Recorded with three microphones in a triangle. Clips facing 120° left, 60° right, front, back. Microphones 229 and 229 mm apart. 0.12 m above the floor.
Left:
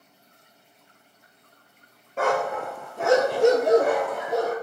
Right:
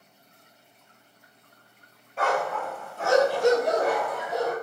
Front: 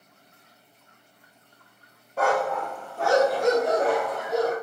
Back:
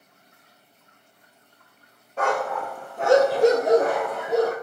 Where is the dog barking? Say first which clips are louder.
Left 3 dB, front 1 dB; 75° left, 0.8 m; by 4.5 s 160° left, 1.2 m.